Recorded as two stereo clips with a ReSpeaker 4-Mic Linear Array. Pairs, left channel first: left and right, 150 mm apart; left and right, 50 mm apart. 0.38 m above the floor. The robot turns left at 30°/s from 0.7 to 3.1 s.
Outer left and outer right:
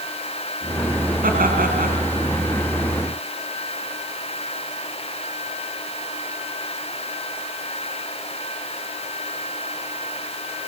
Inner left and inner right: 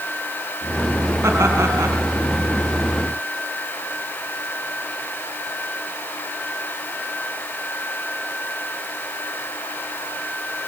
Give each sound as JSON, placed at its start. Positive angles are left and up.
{"t": 1.2, "sound": "laughter", "side_deg": -70, "distance_m": 4.0}